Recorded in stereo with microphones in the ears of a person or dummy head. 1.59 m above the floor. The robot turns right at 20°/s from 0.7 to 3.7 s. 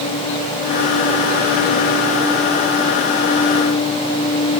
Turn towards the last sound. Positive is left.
No sound to turn to.